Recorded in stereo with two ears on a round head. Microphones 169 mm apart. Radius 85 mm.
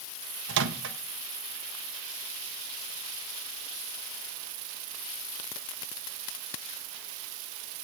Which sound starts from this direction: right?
A microwave, at 0.5 s.